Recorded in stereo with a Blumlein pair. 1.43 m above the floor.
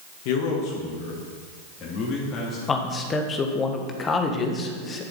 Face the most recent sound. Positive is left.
turn(degrees=20)